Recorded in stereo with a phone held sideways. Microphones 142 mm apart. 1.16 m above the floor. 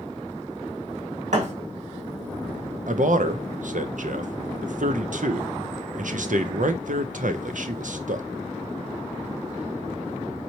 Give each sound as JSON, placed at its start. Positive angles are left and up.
{"t": 1.3, "sound": "a thud", "side_deg": -65, "distance_m": 1.6}
{"t": 2.9, "sound": "a man speaking", "side_deg": -75, "distance_m": 0.5}